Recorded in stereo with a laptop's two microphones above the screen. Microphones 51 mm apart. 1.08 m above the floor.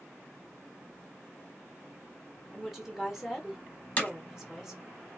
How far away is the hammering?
About 0.9 m.